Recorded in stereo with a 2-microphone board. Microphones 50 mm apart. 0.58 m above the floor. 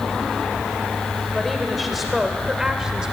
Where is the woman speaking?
5° left (ahead or behind), 2.5 m; by 3.1 s 15° right (ahead or behind), 2 m.